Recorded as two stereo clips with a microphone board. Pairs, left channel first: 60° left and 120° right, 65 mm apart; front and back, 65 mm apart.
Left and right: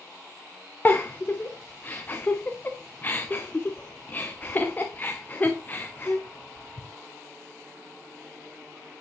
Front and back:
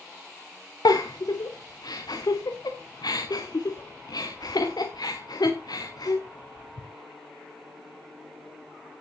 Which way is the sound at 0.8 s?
5° right.